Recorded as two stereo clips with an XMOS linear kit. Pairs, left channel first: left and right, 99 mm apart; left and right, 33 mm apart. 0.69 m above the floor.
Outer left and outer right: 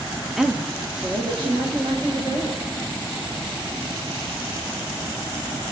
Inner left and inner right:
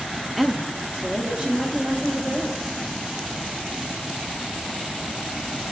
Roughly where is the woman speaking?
Centre.